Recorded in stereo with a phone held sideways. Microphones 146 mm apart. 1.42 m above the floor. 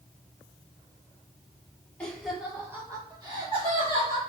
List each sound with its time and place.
2.0 s laughter: 5° left (ahead or behind), 1.4 m; by 4.2 s 50° right (ahead or behind), 2 m